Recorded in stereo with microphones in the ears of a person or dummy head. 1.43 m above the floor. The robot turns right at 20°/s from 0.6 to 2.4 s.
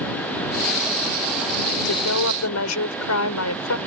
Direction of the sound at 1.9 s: 85° left.